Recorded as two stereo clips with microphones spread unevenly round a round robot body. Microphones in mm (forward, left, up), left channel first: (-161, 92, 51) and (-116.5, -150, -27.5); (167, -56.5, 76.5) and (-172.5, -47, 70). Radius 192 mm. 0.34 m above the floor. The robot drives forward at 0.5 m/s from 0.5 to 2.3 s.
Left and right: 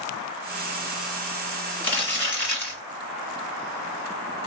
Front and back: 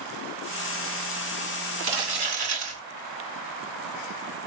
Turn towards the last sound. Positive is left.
turn(degrees=175)